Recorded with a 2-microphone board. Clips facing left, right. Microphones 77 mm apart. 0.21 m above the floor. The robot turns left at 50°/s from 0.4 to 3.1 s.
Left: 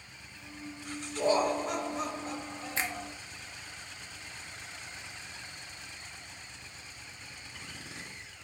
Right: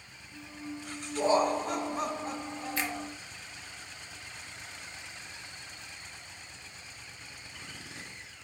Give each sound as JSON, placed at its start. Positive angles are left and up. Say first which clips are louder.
{"t": 1.1, "sound": "laughter", "louder": "right 1 dB", "azimuth_deg": -40, "distance_m": 2.5}
{"t": 2.8, "sound": "a finger snap", "louder": "even", "side_deg": 30, "distance_m": 0.9}